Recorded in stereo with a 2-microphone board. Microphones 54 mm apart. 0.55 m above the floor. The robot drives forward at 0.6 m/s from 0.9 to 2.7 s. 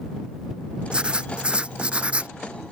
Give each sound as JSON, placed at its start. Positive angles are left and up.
{"t": 0.9, "sound": "writing", "side_deg": -20}